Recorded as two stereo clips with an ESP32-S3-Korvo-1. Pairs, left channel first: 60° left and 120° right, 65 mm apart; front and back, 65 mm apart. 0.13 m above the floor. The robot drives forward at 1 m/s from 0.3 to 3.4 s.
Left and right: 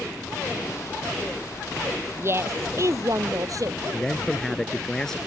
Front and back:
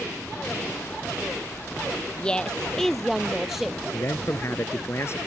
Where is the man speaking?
20° right.